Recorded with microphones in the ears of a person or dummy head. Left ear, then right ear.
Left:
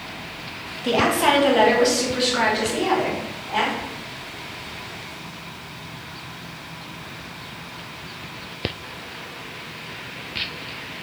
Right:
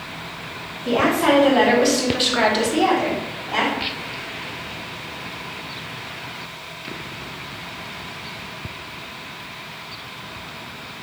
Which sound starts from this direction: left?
A woman speaking, at 0.8 s.